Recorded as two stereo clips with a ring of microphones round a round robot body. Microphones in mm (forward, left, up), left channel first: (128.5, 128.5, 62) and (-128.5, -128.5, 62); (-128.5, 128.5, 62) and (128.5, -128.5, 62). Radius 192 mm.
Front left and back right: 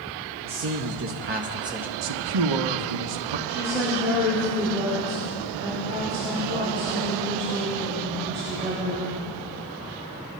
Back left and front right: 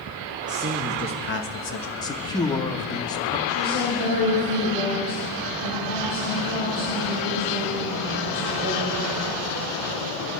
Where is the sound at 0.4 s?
120° right, 1.4 m; by 1.9 s 140° left, 1.4 m.